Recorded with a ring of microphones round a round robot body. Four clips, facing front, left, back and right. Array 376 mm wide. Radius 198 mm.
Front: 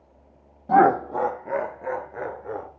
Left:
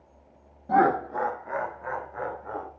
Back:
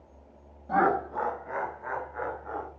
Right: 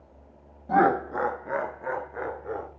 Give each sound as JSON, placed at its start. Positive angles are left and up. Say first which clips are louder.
{"t": 0.7, "sound": "laughter", "louder": "even, front 8 dB", "azimuth_deg": 0, "distance_m": 0.9}